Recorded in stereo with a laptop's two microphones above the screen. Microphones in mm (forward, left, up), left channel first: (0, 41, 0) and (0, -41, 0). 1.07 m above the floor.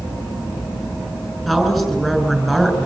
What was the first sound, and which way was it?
A woman speaking, 5° left (ahead or behind).